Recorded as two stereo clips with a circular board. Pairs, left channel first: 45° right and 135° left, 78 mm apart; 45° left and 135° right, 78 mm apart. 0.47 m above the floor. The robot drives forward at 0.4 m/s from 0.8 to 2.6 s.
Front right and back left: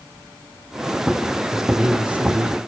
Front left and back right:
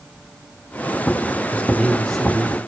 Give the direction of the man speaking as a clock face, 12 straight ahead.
10 o'clock.